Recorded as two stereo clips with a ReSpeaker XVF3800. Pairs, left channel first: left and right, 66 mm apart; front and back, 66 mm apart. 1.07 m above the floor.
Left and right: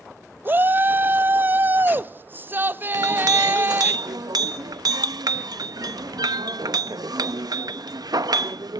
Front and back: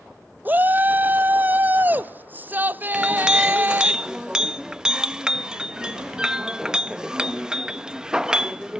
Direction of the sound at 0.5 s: 130° right.